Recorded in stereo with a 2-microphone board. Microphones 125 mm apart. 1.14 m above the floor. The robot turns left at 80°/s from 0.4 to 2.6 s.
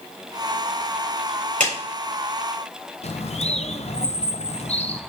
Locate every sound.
1.6 s a clap: 75° right (ahead or behind), 4 m; by 1.7 s 65° right (ahead or behind), 4 m
3.0 s a bird: 60° left (ahead or behind), 0.6 m